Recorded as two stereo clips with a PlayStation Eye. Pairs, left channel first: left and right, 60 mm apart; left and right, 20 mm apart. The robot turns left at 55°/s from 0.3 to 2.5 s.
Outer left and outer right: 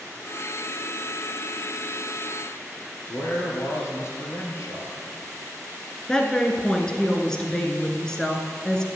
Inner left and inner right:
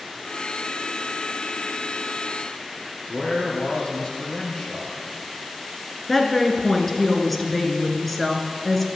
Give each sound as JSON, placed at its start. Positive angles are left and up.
{"t": 3.1, "sound": "a man speaking", "side_deg": 50, "distance_m": 2.5}
{"t": 6.1, "sound": "a woman speaking", "side_deg": 10, "distance_m": 1.2}